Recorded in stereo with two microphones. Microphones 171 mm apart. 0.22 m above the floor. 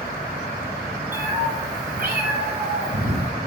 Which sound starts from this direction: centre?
A cat meowing, at 1.1 s.